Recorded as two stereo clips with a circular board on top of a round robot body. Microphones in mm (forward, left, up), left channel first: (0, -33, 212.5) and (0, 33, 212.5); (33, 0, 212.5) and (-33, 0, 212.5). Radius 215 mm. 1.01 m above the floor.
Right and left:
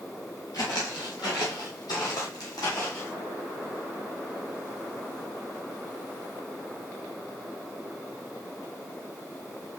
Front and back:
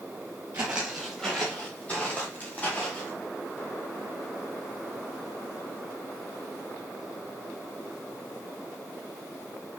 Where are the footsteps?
120° right, 1.1 m; by 3.1 s 60° right, 3.5 m.